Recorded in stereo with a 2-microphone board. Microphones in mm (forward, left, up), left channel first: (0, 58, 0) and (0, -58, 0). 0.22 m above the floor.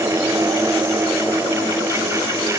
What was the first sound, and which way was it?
Only background noise.